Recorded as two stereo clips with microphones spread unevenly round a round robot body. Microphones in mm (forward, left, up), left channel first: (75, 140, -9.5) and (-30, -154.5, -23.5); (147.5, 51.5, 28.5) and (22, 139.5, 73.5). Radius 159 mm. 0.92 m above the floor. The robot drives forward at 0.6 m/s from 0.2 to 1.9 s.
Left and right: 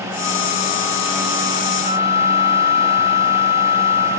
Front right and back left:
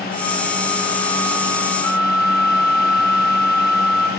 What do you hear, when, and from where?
1.8 s a flute: 35° left, 2.5 m